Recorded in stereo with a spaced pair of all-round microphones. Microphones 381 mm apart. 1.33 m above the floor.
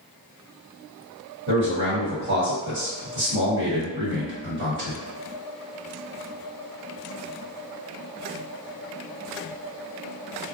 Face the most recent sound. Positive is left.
turn(degrees=-30)  # may be behind; listen again after turning